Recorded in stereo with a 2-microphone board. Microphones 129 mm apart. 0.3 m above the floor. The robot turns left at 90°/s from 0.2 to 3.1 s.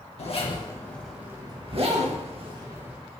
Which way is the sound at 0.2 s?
60° left (ahead or behind).